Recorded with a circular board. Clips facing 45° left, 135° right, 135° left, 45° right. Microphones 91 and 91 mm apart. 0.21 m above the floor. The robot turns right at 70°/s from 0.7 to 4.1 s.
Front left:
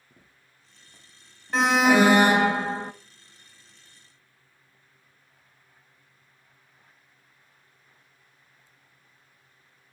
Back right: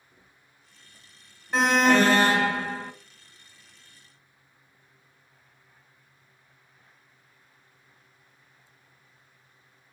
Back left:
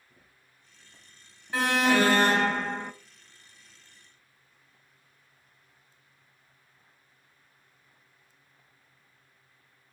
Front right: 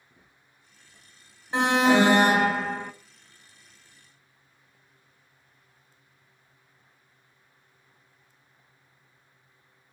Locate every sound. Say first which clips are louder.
0.1 s footsteps: front left 2 dB, front right 1 dB; 40° left, 3 m; by 2.4 s 175° left, 5.5 m
1.5 s an alarm: front left 1 dB, front right 4 dB; 50° right, 0.6 m; by 2.9 s 50° left, 0.6 m